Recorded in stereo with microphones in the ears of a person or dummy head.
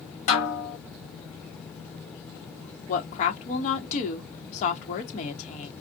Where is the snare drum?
35° left (ahead or behind), 1.7 m.